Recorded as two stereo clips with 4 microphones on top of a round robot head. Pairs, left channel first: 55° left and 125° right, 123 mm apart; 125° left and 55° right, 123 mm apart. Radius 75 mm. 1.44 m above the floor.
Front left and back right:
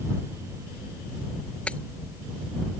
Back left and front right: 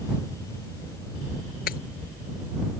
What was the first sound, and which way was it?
Breaking glass, 135° left.